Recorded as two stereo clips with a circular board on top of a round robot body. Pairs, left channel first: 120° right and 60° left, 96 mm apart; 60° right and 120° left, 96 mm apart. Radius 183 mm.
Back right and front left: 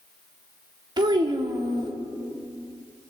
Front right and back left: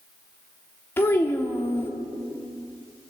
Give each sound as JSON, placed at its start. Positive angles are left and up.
{"t": 1.0, "sound": "a child speaking", "azimuth_deg": 10, "distance_m": 1.5}